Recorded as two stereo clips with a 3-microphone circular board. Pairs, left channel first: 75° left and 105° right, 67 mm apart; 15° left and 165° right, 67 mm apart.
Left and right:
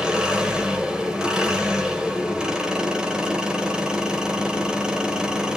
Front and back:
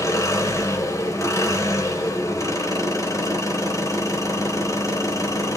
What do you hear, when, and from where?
0.0 s an engine running: 25° right, 2.5 m